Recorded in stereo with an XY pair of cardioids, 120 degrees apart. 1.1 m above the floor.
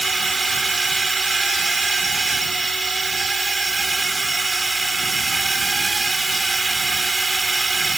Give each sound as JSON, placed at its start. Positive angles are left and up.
{"t": 0.0, "sound": "a drone", "azimuth_deg": -15}